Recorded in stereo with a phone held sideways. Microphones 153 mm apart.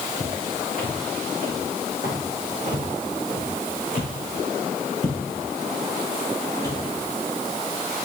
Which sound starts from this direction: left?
Footsteps, at 0.2 s.